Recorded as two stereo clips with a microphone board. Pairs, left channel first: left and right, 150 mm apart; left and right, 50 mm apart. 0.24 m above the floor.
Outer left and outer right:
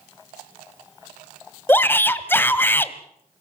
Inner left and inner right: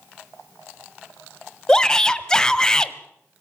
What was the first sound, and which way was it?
A shout, 15° left (ahead or behind).